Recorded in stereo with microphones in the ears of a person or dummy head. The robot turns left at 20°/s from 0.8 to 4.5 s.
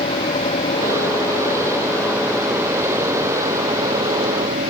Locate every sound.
0.0 s an engine running: 30° left; by 4.7 s 45° right